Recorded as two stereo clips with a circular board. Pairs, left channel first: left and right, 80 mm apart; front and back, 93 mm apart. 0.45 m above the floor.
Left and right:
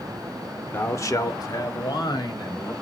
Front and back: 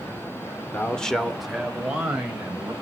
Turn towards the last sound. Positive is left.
turn(degrees=105)